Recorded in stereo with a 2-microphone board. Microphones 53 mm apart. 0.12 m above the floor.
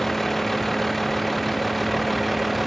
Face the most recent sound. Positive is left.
turn(degrees=0)  # may be behind; listen again after turning